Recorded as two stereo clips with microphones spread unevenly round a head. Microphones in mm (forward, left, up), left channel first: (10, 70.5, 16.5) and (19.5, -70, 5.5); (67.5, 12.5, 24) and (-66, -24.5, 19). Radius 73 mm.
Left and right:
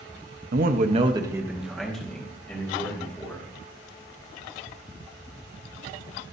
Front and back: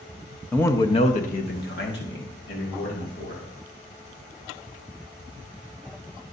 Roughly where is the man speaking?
Ahead right.